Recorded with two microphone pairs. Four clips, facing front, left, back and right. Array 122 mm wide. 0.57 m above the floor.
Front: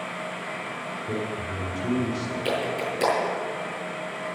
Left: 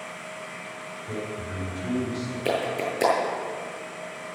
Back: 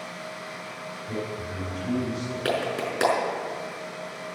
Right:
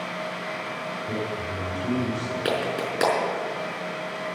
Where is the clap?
130° right, 5.5 m.